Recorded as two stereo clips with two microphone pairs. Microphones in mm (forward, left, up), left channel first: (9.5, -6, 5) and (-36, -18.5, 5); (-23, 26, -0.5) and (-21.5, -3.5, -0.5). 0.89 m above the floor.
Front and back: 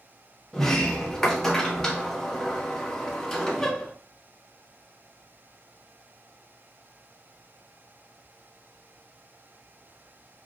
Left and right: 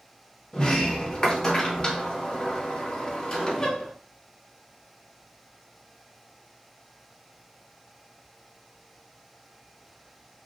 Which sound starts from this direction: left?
A sliding door, at 0.5 s.